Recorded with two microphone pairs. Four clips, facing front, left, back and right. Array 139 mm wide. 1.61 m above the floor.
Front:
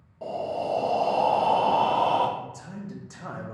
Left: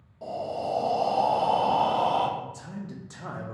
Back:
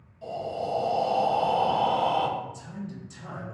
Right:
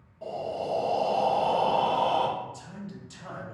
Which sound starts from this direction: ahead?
Breathing, at 0.2 s.